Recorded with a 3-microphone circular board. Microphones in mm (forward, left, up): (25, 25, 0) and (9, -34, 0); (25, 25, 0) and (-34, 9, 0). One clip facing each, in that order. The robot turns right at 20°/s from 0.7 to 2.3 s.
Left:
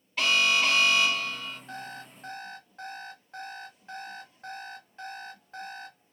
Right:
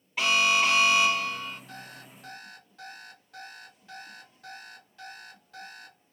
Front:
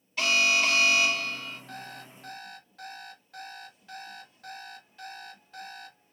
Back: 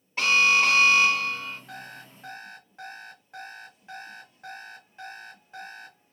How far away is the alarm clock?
About 1.5 m.